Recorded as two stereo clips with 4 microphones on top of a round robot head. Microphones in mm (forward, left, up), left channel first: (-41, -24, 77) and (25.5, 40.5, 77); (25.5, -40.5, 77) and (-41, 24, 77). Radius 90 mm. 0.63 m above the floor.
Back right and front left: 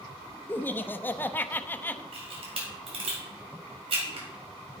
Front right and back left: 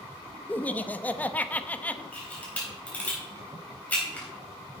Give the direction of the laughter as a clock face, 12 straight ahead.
3 o'clock.